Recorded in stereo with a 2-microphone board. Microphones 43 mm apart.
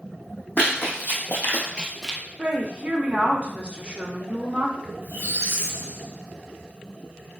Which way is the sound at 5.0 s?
70° left (ahead or behind).